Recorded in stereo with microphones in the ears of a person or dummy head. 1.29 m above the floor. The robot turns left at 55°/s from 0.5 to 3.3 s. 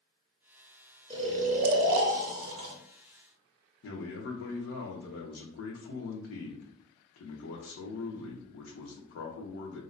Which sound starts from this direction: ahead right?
Snoring, at 1.1 s.